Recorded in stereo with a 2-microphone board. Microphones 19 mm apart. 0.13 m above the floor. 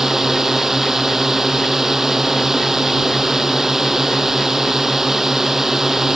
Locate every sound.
0.0 s a drone: 20° right (ahead or behind)